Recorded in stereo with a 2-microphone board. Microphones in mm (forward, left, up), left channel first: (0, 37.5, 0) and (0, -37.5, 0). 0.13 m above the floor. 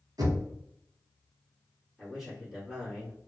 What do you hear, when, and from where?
0.2 s knocking: 60° right (ahead or behind), 1.5 m
2.0 s a man speaking: 5° right (ahead or behind), 1.5 m